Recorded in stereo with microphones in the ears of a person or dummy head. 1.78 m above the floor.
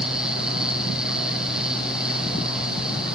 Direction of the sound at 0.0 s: Centre (ahead or behind).